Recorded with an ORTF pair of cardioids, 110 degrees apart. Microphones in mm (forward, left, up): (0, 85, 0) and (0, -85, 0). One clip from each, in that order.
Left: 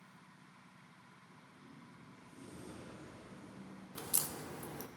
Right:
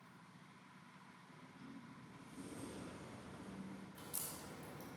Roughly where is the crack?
Ahead left.